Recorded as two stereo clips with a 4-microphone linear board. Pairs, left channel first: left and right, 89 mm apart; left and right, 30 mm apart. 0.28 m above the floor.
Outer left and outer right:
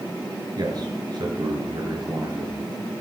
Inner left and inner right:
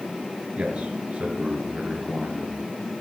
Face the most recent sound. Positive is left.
turn(degrees=-50)  # may be behind; listen again after turning